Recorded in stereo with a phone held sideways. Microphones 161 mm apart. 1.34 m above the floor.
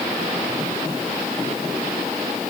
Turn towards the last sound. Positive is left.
No sound to turn to.